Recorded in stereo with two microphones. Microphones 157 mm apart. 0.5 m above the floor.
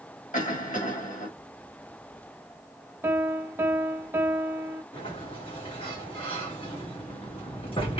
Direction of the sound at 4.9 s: 35° left (ahead or behind).